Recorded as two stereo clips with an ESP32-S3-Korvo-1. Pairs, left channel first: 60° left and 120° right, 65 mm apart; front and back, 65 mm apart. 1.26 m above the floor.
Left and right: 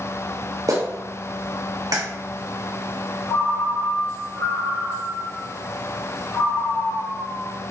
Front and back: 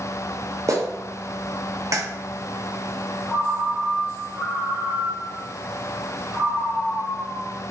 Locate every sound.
0.7 s a clap: 145° right, 1.1 m
3.3 s a ringtone: 105° left, 1.3 m